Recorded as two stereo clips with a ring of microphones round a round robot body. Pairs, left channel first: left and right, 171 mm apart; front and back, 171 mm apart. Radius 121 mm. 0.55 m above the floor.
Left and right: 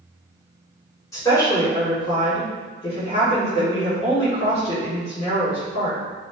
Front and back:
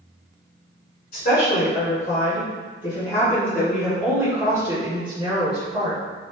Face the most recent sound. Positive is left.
turn(degrees=140)